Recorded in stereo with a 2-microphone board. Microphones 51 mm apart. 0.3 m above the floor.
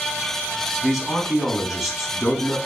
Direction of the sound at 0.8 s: Centre (ahead or behind).